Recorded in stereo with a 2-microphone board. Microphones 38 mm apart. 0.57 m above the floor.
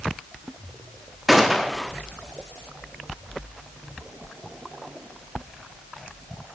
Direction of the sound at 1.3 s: 5° right (ahead or behind).